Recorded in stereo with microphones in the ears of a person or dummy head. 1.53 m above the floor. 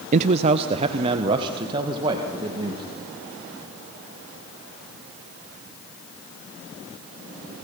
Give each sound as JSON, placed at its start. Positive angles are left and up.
{"t": 0.1, "sound": "a man speaking", "side_deg": -40, "distance_m": 0.5}